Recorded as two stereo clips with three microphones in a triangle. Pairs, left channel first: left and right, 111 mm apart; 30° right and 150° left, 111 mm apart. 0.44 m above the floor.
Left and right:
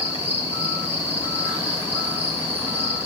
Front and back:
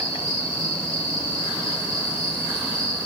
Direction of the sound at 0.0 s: 75° right.